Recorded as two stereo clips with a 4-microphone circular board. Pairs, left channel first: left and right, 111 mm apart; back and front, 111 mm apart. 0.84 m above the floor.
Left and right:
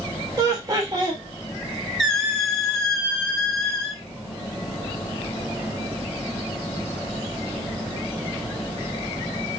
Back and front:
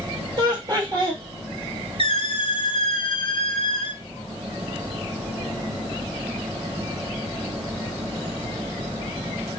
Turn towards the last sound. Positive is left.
turn(degrees=175)